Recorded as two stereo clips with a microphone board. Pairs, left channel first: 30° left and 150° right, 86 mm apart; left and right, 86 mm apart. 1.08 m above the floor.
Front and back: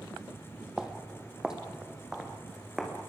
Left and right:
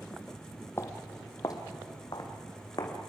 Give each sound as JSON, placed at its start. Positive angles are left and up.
{"t": 0.8, "sound": "footsteps", "azimuth_deg": 135, "distance_m": 1.6}